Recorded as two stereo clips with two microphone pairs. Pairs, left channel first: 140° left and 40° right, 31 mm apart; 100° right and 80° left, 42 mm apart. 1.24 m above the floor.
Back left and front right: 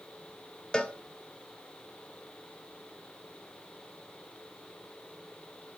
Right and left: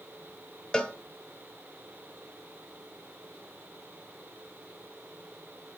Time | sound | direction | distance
0.7 | a cowbell | 165° right | 1.3 m